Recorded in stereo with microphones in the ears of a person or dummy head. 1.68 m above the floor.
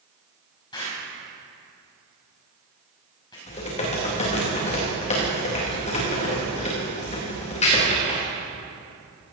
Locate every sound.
0.7 s an explosion: 15° left (ahead or behind), 5 m
3.5 s typing on a keyboard: 30° left (ahead or behind), 3 m